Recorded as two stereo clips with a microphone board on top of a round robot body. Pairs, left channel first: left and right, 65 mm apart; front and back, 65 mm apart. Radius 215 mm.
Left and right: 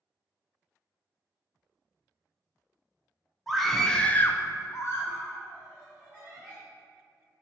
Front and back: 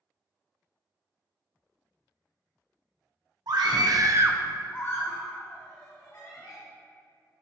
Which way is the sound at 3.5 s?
Straight behind.